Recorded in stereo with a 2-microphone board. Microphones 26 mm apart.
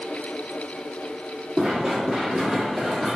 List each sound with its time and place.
1.6 s running footsteps: 5° right (ahead or behind), 1.7 m; by 3.2 s 15° left (ahead or behind), 1.3 m